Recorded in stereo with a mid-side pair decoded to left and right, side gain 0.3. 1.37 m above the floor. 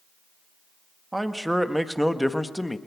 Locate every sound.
1.1 s a man speaking: 15° right, 2.0 m; by 2.8 s 20° left, 1.7 m